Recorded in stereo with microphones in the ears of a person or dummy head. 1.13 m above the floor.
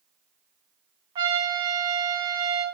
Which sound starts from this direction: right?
A trumpet, at 1.1 s.